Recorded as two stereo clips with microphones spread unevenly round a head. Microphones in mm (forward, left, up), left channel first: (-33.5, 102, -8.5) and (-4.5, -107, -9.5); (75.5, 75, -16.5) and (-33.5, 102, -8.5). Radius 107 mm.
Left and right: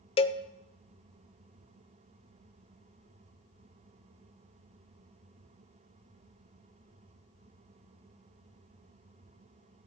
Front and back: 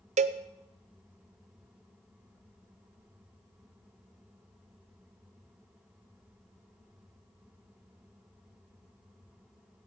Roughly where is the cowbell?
Behind.